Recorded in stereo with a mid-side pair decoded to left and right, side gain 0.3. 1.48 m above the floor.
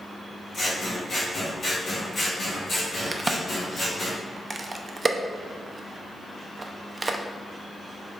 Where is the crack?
35° right, 0.6 m.